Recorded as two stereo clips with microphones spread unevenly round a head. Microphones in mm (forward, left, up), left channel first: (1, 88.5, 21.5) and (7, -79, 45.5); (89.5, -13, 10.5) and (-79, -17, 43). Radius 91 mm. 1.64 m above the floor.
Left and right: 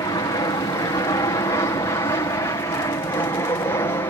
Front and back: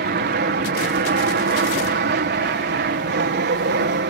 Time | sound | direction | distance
0.0 | an aircraft | 155° left | ?